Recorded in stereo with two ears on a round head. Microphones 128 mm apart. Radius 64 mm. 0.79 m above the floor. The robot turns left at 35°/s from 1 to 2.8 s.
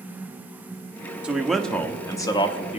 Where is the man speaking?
170° right, 1.1 m; by 2.8 s 135° left, 1.1 m.